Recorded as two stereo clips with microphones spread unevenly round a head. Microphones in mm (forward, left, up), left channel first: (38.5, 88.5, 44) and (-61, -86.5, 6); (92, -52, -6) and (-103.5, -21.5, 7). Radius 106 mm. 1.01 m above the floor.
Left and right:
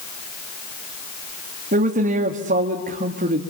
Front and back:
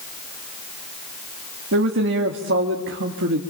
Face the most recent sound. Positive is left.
turn(degrees=-165)